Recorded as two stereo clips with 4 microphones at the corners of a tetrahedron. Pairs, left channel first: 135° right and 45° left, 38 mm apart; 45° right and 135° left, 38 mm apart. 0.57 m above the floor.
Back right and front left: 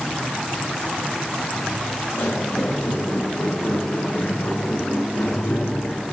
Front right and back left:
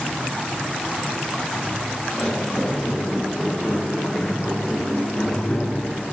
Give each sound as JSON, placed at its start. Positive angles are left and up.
{"t": 1.5, "sound": "footsteps", "azimuth_deg": -130, "distance_m": 3.5}